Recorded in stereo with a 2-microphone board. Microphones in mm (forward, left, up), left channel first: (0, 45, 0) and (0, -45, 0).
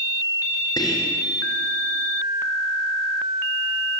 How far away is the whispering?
About 1.8 m.